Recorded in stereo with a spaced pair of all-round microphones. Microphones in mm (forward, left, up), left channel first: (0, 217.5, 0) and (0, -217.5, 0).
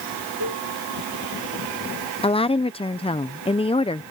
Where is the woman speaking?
10° left (ahead or behind).